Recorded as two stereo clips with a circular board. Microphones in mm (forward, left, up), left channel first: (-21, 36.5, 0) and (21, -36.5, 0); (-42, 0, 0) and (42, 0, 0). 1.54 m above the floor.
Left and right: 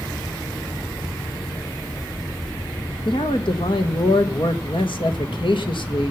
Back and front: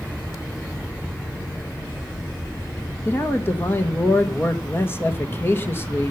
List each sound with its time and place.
3.0 s a man speaking: 115° left, 2.5 m